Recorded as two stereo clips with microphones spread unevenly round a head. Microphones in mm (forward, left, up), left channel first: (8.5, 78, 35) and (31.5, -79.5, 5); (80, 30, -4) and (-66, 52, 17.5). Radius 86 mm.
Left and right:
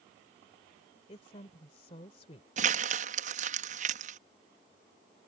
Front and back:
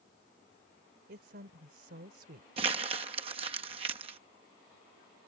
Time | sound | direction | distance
1.1 | a woman speaking | 155° left | ?
2.6 | crumpling | 125° right | ?